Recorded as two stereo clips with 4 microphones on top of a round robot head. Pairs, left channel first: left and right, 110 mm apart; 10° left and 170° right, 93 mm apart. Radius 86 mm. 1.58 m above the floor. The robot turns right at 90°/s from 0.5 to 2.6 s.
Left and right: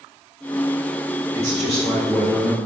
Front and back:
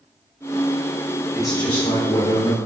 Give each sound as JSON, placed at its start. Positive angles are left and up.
{"t": 1.3, "sound": "a man speaking", "azimuth_deg": -90, "distance_m": 1.5}